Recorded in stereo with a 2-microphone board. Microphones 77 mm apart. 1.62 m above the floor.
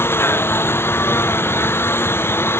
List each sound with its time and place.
0.0 s a lawn mower: 30° left (ahead or behind)